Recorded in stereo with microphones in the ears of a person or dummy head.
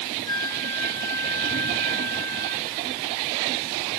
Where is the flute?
15° left (ahead or behind).